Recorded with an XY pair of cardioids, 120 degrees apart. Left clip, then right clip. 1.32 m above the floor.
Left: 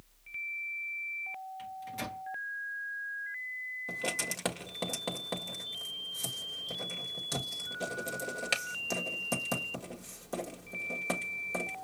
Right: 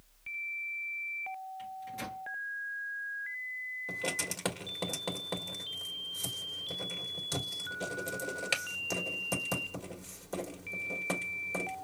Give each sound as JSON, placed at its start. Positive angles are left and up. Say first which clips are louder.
{"t": 1.6, "sound": "a microwave", "louder": "left 1 dB", "azimuth_deg": 25, "distance_m": 1.3}
{"t": 3.9, "sound": "writing", "louder": "left 1 dB", "azimuth_deg": 5, "distance_m": 1.6}